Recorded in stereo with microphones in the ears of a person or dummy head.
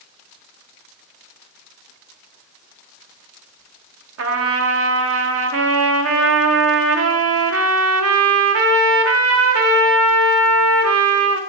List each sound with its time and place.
4.2 s a trumpet: 65° right (ahead or behind), 0.5 m